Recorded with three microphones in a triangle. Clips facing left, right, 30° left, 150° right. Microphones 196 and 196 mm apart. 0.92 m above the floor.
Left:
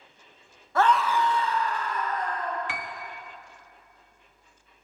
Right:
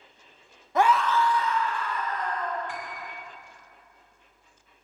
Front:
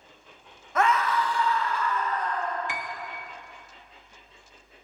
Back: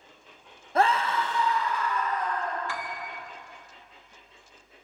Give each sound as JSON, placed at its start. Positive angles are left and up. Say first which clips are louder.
{"t": 0.8, "sound": "a scream", "louder": "right 1 dB, even", "azimuth_deg": -145, "distance_m": 0.5}
{"t": 2.7, "sound": "a piano", "louder": "even, even", "azimuth_deg": 100, "distance_m": 0.5}